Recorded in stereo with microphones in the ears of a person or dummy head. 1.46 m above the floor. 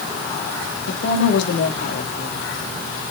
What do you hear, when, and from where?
0.9 s a woman speaking: 65° left (ahead or behind), 3 m